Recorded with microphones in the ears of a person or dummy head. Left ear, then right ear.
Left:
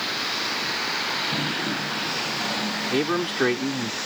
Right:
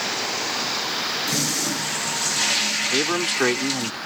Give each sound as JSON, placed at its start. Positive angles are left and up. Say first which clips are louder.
{"t": 1.3, "sound": "a toilet flushing", "louder": "right 2 dB", "side_deg": -70}
{"t": 2.9, "sound": "a man speaking", "louder": "right 2 dB", "side_deg": -30}